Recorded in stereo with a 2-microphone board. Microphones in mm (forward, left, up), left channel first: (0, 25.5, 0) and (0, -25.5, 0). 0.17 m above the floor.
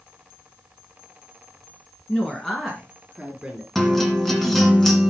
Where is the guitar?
Centre (ahead or behind), 1.9 m.